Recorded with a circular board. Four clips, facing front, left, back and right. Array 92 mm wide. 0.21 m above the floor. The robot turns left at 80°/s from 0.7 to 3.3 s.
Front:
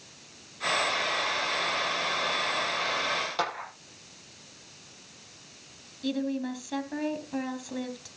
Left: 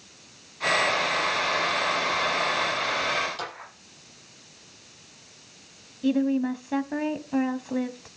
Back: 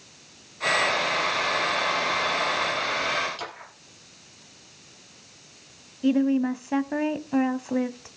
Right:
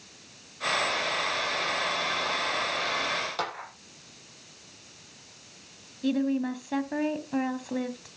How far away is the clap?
About 6.5 m.